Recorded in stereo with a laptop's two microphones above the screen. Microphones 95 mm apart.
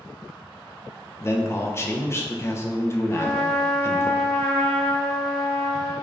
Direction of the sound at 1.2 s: 25° left (ahead or behind).